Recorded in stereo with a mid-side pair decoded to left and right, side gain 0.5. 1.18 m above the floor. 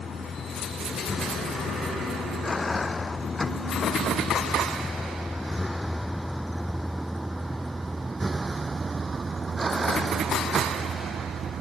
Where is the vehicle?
40° left; by 11.6 s 45° right.